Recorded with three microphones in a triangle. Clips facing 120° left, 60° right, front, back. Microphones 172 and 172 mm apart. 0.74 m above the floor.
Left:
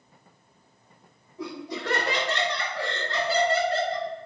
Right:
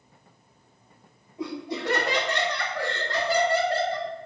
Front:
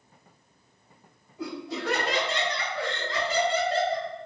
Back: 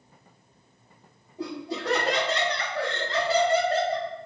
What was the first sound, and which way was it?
Laughter, 125° right.